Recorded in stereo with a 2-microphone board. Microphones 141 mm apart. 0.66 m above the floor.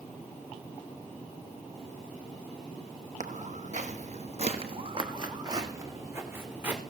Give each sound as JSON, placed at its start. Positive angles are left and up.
{"t": 3.2, "sound": "footsteps", "side_deg": -60, "distance_m": 1.3}